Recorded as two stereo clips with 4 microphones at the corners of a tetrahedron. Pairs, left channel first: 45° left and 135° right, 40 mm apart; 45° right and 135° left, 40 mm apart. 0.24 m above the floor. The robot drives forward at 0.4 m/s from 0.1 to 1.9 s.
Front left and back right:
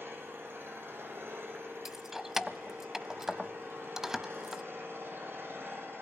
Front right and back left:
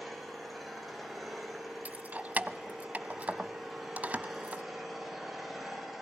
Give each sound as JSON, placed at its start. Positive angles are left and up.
{"t": 0.0, "sound": "an engine running", "azimuth_deg": -135, "distance_m": 6.5}
{"t": 1.9, "sound": "keys jangling", "azimuth_deg": 150, "distance_m": 0.9}